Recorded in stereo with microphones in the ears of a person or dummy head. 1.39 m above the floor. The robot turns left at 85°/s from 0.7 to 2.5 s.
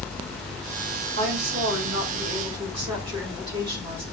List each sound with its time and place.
1.2 s a woman speaking: 35° right, 3.5 m; by 4.0 s 150° right, 3.5 m